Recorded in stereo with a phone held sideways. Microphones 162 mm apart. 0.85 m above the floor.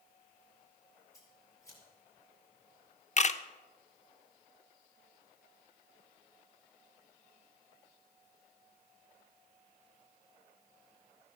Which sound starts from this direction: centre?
Scissors, at 1.1 s.